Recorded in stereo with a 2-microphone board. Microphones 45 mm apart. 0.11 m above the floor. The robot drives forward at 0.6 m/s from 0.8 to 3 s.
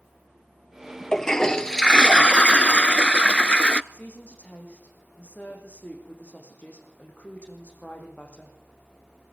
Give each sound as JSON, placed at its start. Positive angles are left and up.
{"t": 1.1, "sound": "a toilet flushing", "side_deg": 15, "distance_m": 1.0}
{"t": 3.9, "sound": "a woman speaking", "side_deg": 40, "distance_m": 6.0}